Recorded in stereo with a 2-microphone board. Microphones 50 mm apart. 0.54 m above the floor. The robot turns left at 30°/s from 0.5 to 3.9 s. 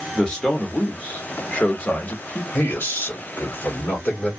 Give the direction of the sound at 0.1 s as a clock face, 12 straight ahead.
7 o'clock.